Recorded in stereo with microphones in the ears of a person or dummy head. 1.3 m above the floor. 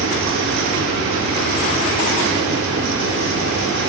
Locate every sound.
0.0 s a fan: 75° right (ahead or behind), 3 m